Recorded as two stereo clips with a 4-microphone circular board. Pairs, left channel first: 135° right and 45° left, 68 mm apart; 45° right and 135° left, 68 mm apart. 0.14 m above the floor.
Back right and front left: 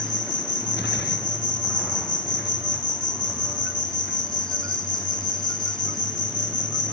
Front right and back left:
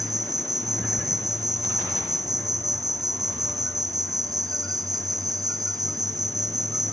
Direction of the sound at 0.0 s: 140° left.